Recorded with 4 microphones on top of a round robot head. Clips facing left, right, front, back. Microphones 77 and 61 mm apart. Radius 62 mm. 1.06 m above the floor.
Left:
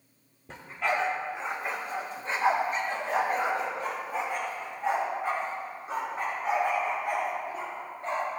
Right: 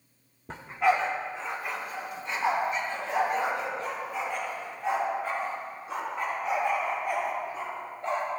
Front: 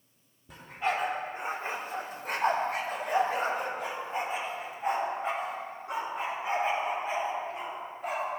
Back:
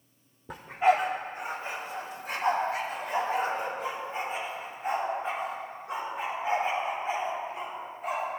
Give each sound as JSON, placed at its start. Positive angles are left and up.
{"t": 0.5, "sound": "a dog barking", "azimuth_deg": -145, "distance_m": 0.7}